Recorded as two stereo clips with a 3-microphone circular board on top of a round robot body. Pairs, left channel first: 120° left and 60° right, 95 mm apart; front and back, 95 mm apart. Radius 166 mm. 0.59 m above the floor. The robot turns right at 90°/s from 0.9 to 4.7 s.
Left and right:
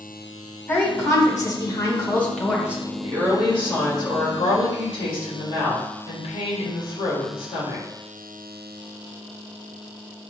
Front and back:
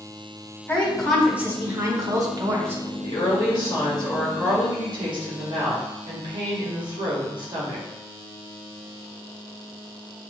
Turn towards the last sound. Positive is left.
turn(degrees=145)